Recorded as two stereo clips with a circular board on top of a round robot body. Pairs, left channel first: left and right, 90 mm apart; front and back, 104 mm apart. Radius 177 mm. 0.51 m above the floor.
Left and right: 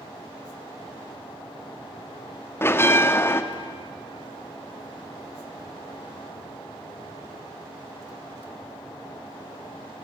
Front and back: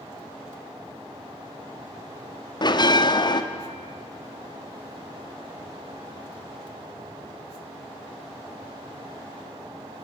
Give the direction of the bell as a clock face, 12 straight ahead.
11 o'clock.